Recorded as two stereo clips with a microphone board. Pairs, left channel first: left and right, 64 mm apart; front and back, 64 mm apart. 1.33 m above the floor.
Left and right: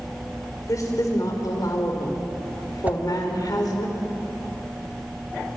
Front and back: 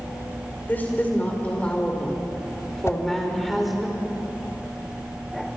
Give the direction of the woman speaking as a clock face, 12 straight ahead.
10 o'clock.